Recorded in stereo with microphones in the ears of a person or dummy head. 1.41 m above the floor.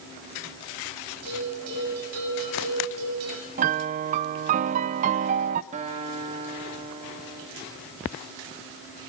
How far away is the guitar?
About 2 m.